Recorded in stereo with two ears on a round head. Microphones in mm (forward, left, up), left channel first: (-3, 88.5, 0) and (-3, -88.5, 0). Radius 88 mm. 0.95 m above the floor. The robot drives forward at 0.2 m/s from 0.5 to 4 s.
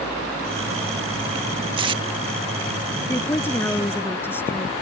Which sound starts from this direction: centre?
A woman speaking, at 3.1 s.